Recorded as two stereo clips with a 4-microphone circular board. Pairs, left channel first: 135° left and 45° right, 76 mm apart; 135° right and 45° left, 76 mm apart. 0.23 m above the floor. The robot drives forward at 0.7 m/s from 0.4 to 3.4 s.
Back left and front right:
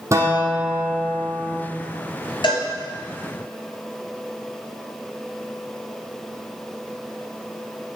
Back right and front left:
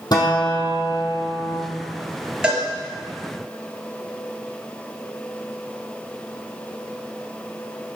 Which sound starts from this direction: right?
A guitar, at 0.1 s.